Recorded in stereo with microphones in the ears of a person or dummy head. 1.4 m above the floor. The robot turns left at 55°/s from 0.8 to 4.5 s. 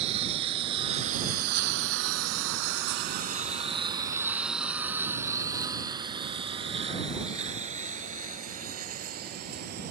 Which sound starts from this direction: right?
A lawn mower, at 0.0 s.